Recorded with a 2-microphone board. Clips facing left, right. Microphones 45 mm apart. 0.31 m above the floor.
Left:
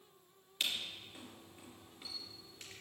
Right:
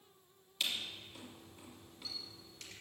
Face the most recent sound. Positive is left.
turn(degrees=25)  # may be behind; listen again after turning